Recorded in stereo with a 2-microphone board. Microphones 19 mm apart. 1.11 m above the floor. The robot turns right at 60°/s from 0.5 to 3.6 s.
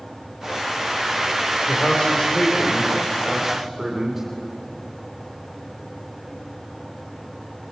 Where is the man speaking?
85° left, 3 m; by 4.2 s 160° right, 3 m.